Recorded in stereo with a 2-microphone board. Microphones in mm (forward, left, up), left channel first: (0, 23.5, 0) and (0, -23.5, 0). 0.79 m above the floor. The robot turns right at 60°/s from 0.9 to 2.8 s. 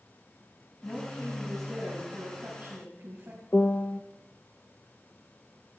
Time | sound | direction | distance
0.8 | a woman speaking | 140° left | 5.5 m
3.5 | a piano | 35° left (ahead or behind) | 0.6 m